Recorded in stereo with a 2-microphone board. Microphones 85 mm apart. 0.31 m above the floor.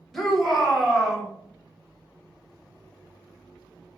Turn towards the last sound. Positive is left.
turn(degrees=-5)  # may be behind; listen again after turning